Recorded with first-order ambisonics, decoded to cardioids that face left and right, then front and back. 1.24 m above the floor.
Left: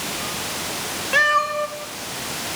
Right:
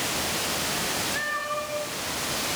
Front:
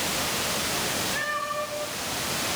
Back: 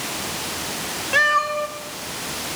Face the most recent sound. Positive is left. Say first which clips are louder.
# left 11 dB, back 10 dB
turn(degrees=130)